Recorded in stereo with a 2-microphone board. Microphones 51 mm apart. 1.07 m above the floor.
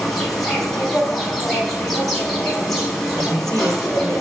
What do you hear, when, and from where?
0.0 s an insect: 5° left (ahead or behind), 4.5 m
3.2 s a woman speaking: 80° right, 3.5 m